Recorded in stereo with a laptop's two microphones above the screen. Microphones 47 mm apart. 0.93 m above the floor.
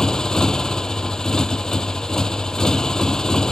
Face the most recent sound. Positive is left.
turn(degrees=15)  # may be behind; listen again after turning